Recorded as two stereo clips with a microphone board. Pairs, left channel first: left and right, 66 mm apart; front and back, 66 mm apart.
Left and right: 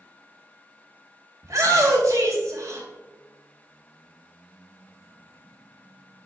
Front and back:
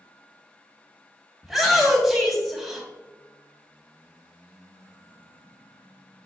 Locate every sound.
1.4 s a shout: 90° right, 2 m